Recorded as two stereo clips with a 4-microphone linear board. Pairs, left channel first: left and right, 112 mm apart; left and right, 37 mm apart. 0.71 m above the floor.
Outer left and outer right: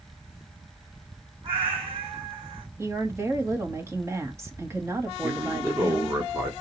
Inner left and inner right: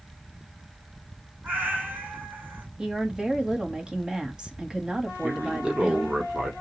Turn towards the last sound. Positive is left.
turn(degrees=-25)  # may be behind; listen again after turning